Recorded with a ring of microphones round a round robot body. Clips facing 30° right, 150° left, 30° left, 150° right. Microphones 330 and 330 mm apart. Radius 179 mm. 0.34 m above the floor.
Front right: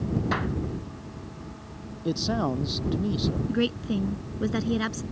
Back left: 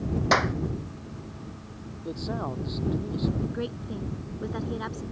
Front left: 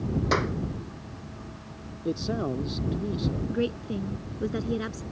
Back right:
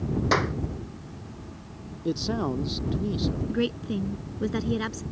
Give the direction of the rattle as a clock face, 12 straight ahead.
I don't hear a rattle.